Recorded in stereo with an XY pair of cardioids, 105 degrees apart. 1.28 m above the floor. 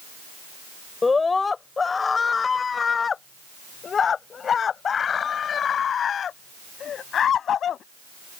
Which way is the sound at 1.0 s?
25° left.